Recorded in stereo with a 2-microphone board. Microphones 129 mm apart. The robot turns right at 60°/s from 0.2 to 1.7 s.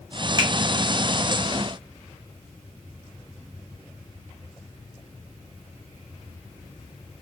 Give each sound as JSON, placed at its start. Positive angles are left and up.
{"t": 0.4, "sound": "a finger snap", "side_deg": -30, "distance_m": 1.0}